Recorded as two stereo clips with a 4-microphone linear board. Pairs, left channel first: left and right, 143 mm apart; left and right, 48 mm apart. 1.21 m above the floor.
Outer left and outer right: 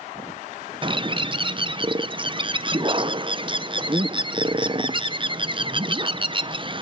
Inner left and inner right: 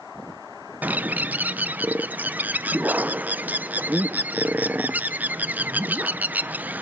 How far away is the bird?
About 0.6 m.